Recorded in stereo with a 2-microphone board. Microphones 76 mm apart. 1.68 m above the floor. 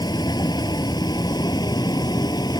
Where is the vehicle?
75° left (ahead or behind); by 2.6 s 70° left (ahead or behind).